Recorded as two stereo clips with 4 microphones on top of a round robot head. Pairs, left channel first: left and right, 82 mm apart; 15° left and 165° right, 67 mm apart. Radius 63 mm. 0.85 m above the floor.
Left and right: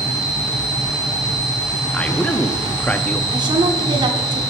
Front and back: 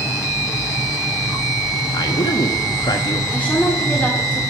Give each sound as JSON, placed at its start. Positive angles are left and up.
{"t": 1.9, "sound": "a man speaking", "azimuth_deg": 15, "distance_m": 1.5}
{"t": 3.3, "sound": "a woman speaking", "azimuth_deg": -60, "distance_m": 2.0}